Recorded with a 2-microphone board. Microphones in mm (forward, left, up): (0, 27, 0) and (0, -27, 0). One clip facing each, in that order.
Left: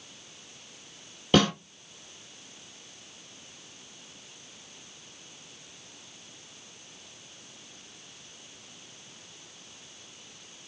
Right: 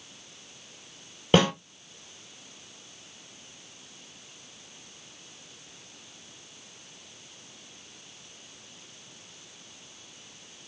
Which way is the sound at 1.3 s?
25° right (ahead or behind).